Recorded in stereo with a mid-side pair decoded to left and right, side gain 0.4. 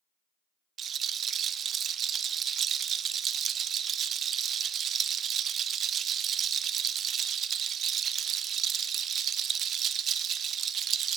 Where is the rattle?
65° right, 0.5 m.